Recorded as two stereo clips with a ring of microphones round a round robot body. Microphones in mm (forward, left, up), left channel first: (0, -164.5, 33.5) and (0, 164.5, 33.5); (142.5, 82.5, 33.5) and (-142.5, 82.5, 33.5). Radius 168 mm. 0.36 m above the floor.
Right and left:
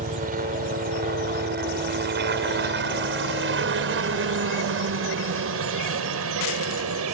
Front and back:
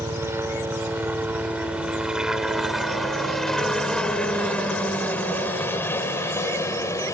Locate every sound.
0.0 s a helicopter: 110° left; by 7.2 s 75° left